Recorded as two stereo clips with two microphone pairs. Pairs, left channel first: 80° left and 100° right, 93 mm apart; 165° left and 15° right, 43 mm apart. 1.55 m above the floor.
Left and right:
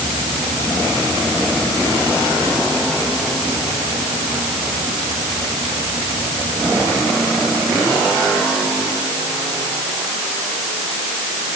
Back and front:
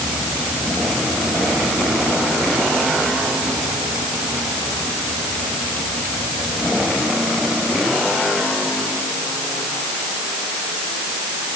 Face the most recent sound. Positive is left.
No sound to turn to.